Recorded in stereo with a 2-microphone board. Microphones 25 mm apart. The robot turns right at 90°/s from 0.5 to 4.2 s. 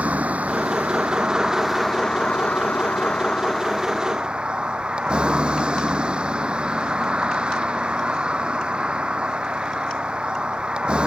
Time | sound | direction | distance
0.0 | a vehicle | 115° right | ?